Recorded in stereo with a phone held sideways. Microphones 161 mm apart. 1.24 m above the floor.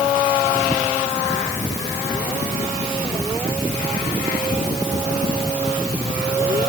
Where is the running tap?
I don't hear a running tap.